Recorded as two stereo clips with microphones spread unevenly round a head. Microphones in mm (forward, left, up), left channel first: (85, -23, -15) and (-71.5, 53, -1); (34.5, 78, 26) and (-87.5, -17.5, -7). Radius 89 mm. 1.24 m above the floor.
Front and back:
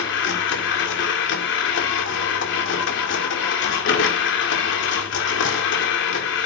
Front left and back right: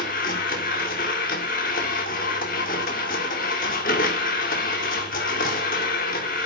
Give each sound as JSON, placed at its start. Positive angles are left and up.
{"t": 0.0, "sound": "a machine running", "azimuth_deg": -5, "distance_m": 2.5}